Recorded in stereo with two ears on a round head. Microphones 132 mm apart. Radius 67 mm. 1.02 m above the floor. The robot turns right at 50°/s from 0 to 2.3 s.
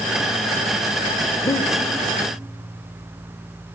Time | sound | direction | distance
1.4 | breathing | 25° left (ahead or behind) | 0.9 m